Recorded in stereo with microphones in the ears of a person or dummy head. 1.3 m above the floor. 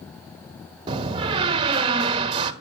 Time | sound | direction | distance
0.9 | a door slam | 30° right (ahead or behind) | 1.4 m